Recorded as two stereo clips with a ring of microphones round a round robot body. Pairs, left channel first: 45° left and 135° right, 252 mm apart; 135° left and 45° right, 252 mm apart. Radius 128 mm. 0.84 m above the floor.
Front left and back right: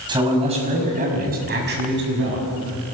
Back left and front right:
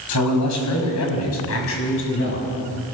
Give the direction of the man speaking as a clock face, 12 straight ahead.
7 o'clock.